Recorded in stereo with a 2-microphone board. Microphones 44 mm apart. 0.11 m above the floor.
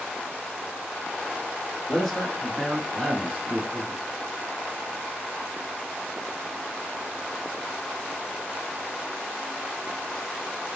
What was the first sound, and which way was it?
A man speaking, 10° left (ahead or behind).